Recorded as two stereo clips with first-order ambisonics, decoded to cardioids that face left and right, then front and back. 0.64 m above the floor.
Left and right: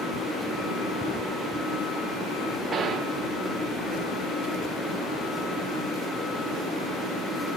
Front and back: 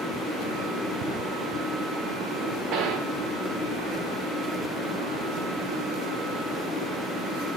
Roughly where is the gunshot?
Behind right.